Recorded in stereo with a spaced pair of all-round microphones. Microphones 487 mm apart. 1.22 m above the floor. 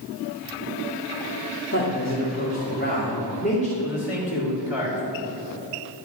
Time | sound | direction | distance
1.7 | a man speaking | 25° left (ahead or behind) | 2.5 m
3.8 | a man speaking | 70° left (ahead or behind) | 4 m